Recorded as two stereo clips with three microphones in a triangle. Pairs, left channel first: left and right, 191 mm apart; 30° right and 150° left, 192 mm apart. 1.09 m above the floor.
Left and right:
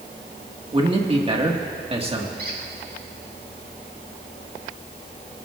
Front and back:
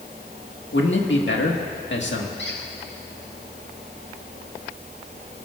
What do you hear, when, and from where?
0.7 s a man speaking: 30° right, 1.8 m
2.4 s a squeak: 55° right, 1.9 m